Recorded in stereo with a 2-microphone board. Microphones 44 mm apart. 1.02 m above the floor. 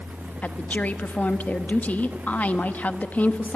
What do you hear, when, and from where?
0.4 s a woman speaking: 35° left (ahead or behind), 1.1 m